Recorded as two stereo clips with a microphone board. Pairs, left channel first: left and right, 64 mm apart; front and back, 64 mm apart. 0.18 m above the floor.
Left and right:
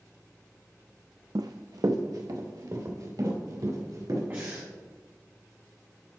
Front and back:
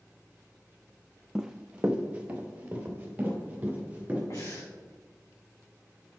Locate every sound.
1.4 s running footsteps: 95° right, 0.5 m; by 4.2 s 115° right, 5 m
4.3 s breathing: 35° right, 3 m